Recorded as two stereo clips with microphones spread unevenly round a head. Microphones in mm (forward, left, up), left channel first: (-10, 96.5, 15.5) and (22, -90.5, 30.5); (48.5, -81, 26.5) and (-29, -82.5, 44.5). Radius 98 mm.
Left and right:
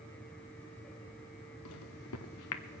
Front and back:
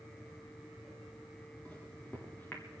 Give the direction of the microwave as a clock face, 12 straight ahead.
9 o'clock.